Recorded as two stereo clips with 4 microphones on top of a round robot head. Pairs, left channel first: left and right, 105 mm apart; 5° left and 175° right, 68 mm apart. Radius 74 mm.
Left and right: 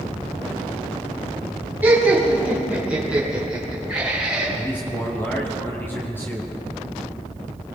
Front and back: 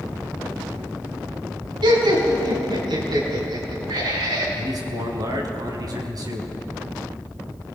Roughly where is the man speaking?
Behind.